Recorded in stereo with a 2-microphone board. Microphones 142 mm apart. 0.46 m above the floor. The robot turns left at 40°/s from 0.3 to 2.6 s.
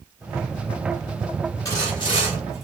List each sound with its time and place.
1.6 s sawing: 150° left, 2.5 m; by 2.7 s 115° left, 2.5 m